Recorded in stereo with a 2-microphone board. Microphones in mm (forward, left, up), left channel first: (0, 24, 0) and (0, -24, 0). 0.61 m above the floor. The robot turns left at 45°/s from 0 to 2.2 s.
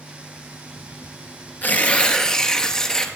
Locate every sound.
1.6 s tearing paper: 40° left (ahead or behind), 1.8 m; by 3.1 s 10° left (ahead or behind), 1.8 m